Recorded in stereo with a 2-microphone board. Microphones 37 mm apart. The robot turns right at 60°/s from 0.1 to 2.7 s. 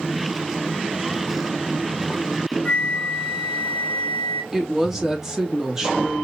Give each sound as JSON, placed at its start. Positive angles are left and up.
{"t": 2.6, "sound": "a flute", "side_deg": 35, "distance_m": 2.5}
{"t": 4.5, "sound": "a woman speaking", "side_deg": -15, "distance_m": 1.9}